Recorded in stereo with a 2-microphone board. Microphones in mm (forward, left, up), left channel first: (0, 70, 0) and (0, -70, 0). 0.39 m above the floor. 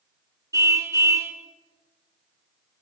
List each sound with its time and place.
0.5 s a car horn: 20° right (ahead or behind), 2.5 m